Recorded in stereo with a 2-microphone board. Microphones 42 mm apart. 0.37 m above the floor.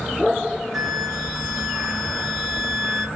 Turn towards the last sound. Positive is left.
turn(degrees=-5)  # may be behind; listen again after turning